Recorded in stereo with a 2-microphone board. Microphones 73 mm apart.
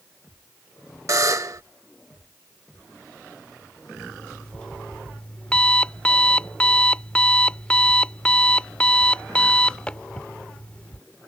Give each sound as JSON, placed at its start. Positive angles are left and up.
{"t": 1.1, "sound": "a buzzer", "side_deg": -50}
{"t": 4.0, "sound": "an alarm clock", "side_deg": 15}